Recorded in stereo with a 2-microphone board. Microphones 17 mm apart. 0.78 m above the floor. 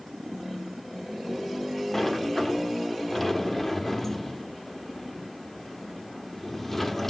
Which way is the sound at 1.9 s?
20° left (ahead or behind).